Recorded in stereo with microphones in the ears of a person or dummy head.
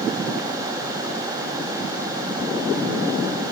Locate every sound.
Only background noise.